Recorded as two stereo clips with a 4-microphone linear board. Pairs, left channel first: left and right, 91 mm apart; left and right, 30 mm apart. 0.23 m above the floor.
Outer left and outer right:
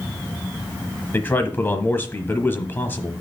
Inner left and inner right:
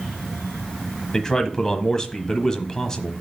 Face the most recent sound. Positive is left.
turn(degrees=25)  # may be behind; listen again after turning